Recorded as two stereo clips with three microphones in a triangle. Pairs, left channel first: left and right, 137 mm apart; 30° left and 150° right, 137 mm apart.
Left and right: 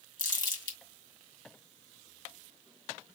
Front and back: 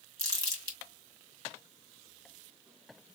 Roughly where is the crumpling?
Behind left.